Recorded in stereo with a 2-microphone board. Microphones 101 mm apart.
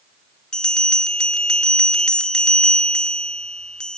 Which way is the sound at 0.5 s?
10° left (ahead or behind).